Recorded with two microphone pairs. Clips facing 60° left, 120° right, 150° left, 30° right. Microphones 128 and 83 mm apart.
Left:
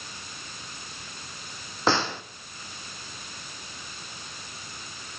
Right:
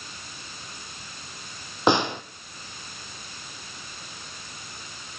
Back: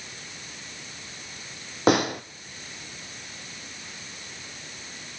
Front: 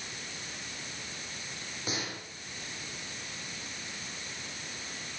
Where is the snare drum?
165° left, 1.3 m.